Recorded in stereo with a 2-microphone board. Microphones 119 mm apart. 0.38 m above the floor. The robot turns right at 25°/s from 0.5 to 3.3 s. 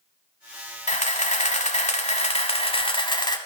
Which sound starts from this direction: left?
A camera shutter, at 0.9 s.